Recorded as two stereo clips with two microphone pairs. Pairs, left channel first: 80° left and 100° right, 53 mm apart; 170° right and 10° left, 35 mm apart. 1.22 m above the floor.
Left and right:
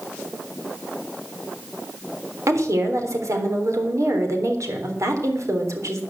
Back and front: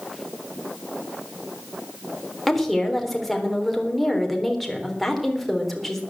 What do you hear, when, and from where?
2.5 s a woman speaking: 80° right, 3.5 m